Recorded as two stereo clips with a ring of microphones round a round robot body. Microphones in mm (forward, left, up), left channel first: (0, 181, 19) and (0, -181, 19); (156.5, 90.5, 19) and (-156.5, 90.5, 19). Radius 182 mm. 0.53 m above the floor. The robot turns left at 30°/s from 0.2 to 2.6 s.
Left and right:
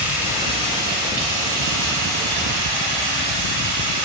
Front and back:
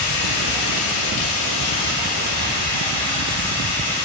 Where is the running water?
5° right, 2 m; by 4.0 s 75° right, 2 m.